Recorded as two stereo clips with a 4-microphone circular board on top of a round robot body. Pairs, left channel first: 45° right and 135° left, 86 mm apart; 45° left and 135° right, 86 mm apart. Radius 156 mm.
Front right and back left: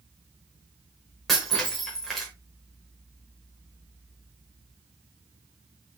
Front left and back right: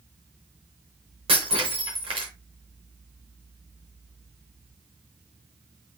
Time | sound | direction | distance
1.3 | breaking glass | 135° right | 0.7 m